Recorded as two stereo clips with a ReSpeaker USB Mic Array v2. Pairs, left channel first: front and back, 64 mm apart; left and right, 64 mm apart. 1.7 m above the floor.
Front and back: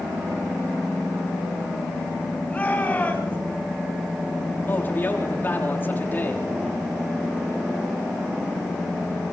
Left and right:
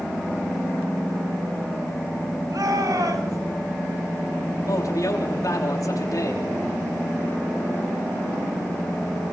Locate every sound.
2.5 s a shout: 70° right, 9.5 m
4.7 s a man speaking: 60° left, 5 m